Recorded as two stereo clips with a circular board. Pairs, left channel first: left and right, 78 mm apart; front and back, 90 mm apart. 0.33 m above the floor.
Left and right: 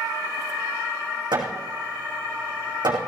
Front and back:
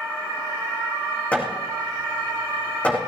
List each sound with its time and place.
1.3 s hammering: 75° right, 4.5 m